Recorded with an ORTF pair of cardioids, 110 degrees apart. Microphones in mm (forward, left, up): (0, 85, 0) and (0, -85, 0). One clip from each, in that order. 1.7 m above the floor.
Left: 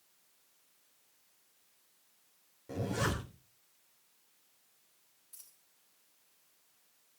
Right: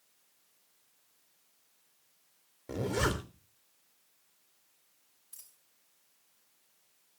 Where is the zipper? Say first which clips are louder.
Right 3 dB; 45° right, 3.5 m.